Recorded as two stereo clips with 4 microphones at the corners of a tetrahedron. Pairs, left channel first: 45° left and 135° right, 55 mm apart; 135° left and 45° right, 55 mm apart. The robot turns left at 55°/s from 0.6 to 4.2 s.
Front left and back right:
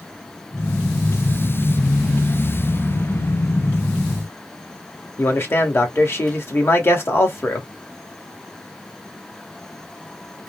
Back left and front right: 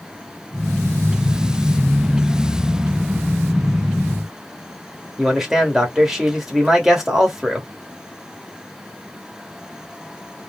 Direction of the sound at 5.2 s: 35° left.